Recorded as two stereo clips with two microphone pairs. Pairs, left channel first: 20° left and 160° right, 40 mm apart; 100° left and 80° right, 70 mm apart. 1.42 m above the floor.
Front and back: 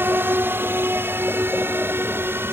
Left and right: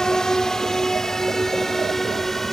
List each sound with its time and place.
0.0 s a drone: 175° right